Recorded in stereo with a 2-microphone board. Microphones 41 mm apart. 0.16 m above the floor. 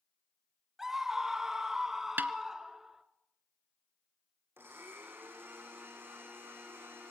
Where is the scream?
10° right (ahead or behind), 1.2 m.